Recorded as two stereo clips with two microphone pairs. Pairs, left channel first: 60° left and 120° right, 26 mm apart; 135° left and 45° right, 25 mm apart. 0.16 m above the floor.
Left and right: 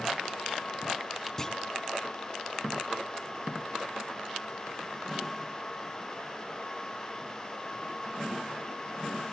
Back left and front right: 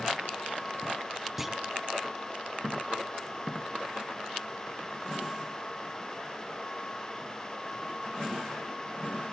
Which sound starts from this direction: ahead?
A clunk, at 1.4 s.